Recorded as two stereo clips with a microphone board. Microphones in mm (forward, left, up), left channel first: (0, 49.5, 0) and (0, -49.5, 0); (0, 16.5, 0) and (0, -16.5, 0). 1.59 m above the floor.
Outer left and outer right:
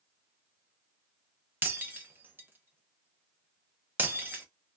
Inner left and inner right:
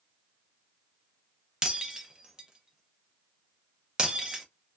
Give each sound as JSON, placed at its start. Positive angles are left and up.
{"t": 1.6, "sound": "breaking glass", "side_deg": -20, "distance_m": 0.7}